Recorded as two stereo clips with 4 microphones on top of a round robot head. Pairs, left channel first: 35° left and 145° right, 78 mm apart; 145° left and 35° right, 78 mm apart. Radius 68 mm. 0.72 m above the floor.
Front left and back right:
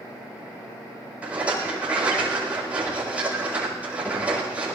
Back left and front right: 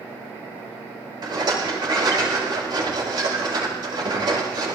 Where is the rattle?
70° right, 8 m.